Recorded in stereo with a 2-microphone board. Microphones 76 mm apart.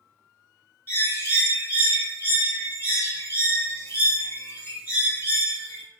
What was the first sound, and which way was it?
A bird, 35° left (ahead or behind).